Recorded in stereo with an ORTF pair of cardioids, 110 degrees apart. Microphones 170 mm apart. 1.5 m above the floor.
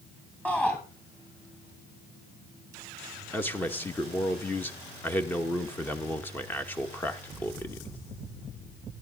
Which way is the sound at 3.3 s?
10° left.